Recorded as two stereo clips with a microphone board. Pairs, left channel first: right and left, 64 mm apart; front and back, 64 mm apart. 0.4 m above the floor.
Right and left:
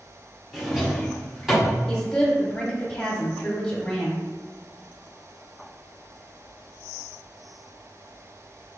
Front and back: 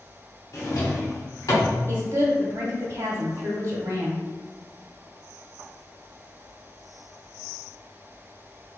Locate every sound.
0.5 s a drawer: 10° left, 1.3 m
1.9 s a woman speaking: 165° right, 1.1 m